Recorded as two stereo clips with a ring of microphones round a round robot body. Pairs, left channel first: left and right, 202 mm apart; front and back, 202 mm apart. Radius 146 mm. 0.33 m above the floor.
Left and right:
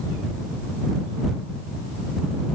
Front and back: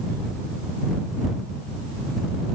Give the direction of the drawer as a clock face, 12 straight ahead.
No drawer in this recording.